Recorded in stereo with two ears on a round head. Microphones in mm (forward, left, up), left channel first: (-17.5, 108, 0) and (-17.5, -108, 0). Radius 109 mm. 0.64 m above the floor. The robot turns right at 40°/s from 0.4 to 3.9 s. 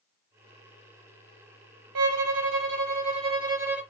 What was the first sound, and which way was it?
A violin, 80° right.